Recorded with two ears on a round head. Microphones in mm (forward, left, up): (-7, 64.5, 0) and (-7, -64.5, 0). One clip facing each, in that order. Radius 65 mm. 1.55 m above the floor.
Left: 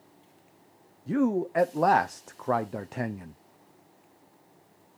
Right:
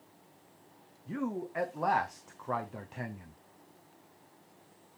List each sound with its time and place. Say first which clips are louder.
1.1 s a man speaking: left 10 dB; 60° left (ahead or behind), 0.5 m